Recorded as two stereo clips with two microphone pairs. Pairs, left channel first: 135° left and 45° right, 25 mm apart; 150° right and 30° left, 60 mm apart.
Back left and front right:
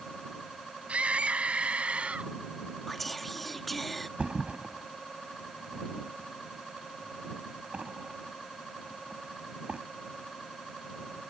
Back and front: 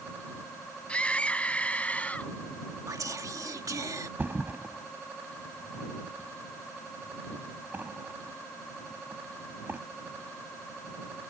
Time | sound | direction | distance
0.9 | a scream | 80° right | ?
2.9 | whispering | 45° left | ?
4.2 | a thud | 25° right | ?